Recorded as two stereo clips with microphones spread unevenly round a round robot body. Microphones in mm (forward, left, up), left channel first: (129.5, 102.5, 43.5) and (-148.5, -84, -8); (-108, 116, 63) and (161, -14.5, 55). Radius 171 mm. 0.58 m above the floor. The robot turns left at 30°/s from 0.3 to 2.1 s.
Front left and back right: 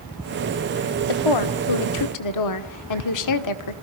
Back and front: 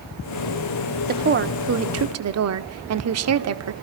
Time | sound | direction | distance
1.1 | a woman speaking | 30° left | 1.6 m